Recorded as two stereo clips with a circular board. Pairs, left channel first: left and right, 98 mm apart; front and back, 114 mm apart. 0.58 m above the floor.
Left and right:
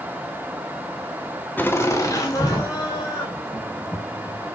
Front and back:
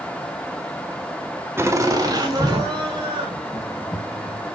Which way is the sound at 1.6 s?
140° left.